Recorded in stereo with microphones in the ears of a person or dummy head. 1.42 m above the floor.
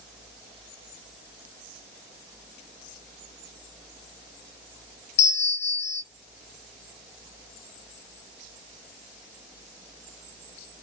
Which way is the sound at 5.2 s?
35° left (ahead or behind).